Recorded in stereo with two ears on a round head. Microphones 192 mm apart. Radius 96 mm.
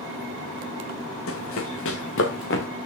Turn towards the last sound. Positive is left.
turn(degrees=60)  # may be behind; listen again after turning